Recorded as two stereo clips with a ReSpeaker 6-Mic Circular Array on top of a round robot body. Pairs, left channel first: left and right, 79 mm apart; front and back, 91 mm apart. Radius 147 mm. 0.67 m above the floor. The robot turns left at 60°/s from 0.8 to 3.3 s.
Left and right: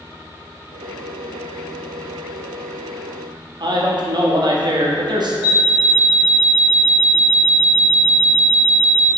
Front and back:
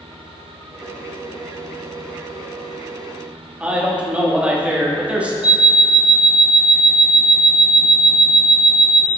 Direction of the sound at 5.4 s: 105° left.